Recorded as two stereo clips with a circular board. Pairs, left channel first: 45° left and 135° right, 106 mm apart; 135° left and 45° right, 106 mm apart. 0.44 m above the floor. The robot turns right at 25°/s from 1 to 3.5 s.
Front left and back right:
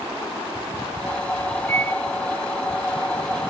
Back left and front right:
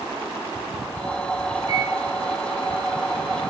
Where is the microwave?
110° left, 2.5 m; by 2.0 s 120° left, 2.5 m.